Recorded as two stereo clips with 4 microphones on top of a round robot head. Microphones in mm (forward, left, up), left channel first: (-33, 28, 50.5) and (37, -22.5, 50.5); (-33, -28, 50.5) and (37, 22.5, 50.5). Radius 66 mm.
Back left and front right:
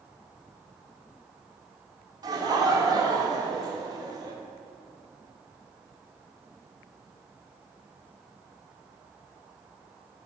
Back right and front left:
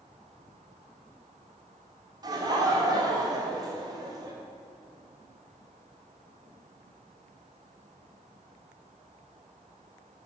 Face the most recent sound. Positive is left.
turn(degrees=0)